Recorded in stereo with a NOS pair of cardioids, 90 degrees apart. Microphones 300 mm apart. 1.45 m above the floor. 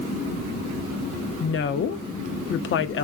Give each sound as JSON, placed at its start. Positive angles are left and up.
{"t": 1.4, "sound": "a woman speaking", "azimuth_deg": 45, "distance_m": 0.5}